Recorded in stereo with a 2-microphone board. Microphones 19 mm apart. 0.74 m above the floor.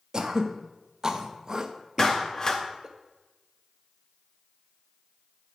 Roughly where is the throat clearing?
Right.